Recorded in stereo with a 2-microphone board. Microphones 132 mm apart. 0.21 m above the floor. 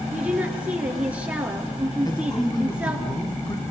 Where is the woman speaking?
10° right (ahead or behind), 3.5 m.